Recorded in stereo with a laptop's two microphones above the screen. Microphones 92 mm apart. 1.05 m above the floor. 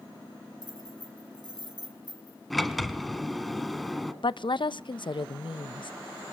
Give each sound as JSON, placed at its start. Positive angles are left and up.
{"t": 0.6, "sound": "keys jangling", "side_deg": -50, "distance_m": 5.5}
{"t": 2.5, "sound": "a sliding door", "side_deg": 0, "distance_m": 1.4}
{"t": 4.2, "sound": "a woman speaking", "side_deg": 60, "distance_m": 0.6}